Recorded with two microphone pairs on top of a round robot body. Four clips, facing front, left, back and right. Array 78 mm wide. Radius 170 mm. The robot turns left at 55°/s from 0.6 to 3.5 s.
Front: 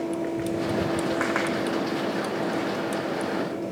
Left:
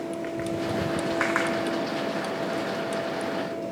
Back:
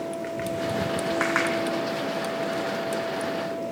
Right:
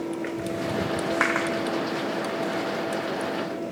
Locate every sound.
Only background noise.